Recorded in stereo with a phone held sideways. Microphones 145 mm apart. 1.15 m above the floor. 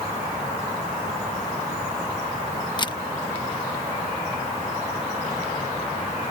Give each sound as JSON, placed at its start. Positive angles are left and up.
{"t": 2.8, "sound": "a camera shutter", "side_deg": 30}